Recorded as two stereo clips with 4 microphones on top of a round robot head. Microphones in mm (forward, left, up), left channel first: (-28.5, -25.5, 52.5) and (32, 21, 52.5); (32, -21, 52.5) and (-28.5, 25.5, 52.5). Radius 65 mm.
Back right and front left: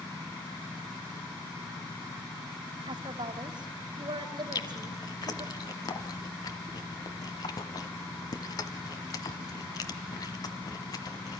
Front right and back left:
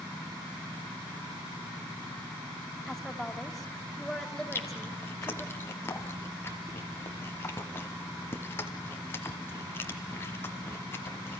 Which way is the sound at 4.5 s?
100° right.